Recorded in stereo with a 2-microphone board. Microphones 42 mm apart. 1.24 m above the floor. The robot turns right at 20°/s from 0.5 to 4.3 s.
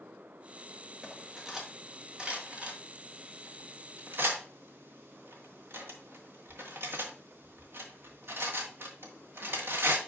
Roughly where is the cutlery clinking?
Centre.